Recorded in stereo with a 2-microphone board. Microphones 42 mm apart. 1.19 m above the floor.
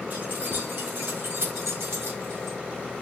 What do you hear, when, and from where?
0.1 s keys jangling: 55° right (ahead or behind), 2.5 m; by 2.6 s 75° right (ahead or behind), 1.6 m